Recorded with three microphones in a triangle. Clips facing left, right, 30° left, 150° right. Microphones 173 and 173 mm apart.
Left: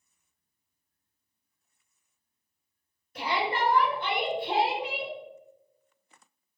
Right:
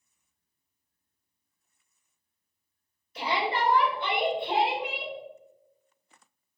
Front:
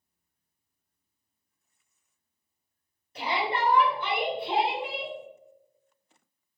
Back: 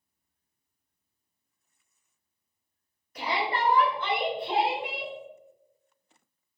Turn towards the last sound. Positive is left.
turn(degrees=135)